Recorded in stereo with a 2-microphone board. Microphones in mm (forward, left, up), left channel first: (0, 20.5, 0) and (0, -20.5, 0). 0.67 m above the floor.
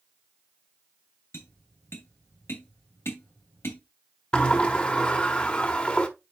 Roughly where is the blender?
I don't hear a blender.